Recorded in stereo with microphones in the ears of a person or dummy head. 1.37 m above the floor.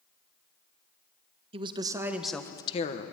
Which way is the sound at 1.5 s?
30° right (ahead or behind).